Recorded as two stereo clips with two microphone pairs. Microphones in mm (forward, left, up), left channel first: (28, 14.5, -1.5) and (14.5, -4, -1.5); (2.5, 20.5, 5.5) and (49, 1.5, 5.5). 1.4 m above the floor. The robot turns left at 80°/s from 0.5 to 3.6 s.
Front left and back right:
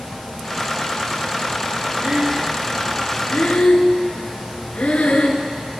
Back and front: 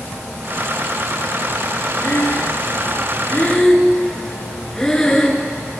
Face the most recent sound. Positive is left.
turn(degrees=80)